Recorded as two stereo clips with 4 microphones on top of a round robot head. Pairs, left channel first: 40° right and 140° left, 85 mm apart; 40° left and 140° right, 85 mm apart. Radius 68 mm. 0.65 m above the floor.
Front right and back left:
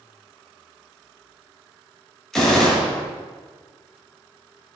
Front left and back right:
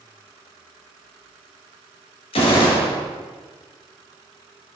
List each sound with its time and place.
2.3 s a gunshot: 45° left, 1.8 m